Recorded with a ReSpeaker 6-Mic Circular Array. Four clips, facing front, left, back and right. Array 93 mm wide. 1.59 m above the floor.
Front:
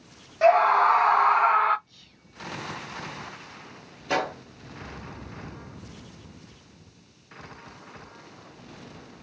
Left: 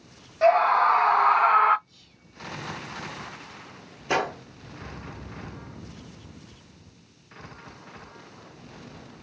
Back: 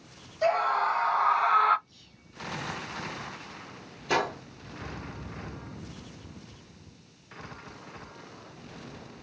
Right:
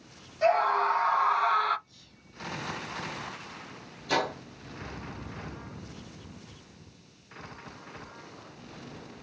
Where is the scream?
35° left, 1.1 m; by 1.8 s 90° left, 0.5 m.